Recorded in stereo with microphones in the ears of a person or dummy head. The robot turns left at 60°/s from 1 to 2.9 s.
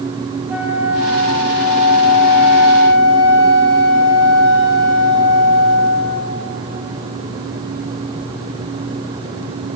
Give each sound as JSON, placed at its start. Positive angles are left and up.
{"t": 0.5, "sound": "a flute", "azimuth_deg": -170, "distance_m": 1.0}